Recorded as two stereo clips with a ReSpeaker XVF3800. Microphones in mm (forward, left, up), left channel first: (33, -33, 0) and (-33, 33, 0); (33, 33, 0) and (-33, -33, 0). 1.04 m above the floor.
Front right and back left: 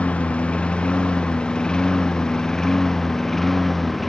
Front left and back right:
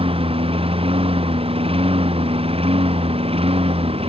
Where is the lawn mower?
125° right; by 4.1 s 135° right.